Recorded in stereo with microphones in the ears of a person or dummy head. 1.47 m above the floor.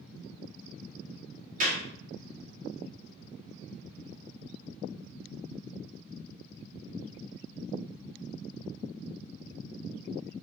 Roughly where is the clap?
Right.